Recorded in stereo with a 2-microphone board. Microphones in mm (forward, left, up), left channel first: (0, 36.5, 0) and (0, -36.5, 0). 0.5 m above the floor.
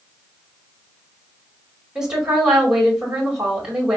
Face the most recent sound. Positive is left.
turn(degrees=-10)  # may be behind; listen again after turning